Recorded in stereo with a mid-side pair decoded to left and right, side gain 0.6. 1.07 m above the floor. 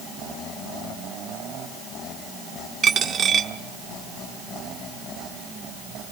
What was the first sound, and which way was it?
A dropped coin, 40° right.